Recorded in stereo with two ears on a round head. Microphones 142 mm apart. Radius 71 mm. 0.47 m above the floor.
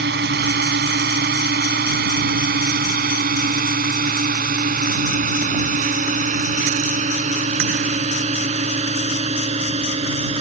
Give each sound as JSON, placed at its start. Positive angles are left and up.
{"t": 0.0, "sound": "a drone", "side_deg": -70}